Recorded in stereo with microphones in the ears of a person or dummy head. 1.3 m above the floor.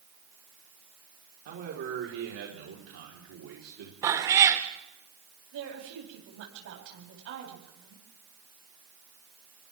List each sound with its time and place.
1.4 s a man speaking: 55° right (ahead or behind), 4.5 m; by 3.9 s 85° right, 4.5 m
4.0 s a cat meowing: 20° right (ahead or behind), 1.6 m
5.5 s a woman speaking: 75° right (ahead or behind), 9 m